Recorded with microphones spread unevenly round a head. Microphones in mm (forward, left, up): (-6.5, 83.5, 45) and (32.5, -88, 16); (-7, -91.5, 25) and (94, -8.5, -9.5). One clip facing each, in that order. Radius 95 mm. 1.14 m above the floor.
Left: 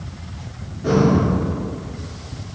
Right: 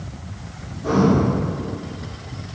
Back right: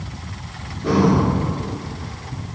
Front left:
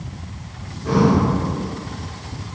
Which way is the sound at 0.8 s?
170° left.